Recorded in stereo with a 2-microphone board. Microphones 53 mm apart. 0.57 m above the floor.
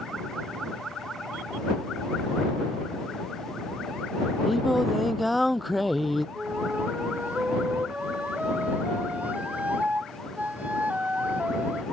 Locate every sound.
4.5 s singing: centre (ahead or behind)
6.3 s a flute: 30° right (ahead or behind)